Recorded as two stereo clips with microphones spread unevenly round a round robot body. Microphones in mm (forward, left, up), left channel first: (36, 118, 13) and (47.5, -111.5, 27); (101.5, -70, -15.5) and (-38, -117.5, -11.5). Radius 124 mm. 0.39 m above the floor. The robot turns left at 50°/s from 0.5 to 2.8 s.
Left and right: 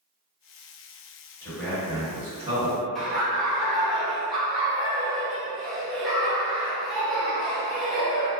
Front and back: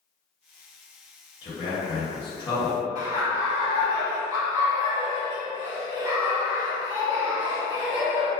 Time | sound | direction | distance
1.4 | a man speaking | 25° left | 1.8 m
3.0 | laughter | 170° left | 0.9 m